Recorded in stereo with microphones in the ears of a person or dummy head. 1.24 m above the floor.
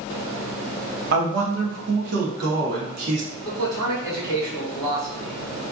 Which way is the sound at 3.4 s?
20° right (ahead or behind).